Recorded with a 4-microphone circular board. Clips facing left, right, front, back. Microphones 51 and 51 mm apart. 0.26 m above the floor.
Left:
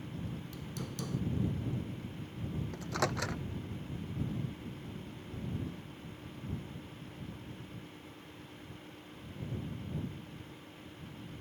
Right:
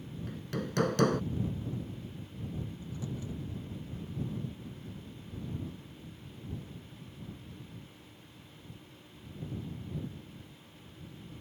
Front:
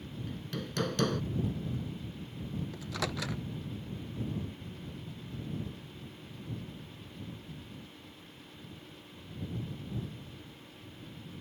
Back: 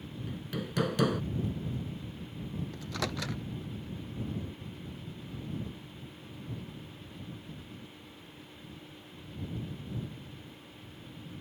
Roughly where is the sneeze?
I don't hear a sneeze.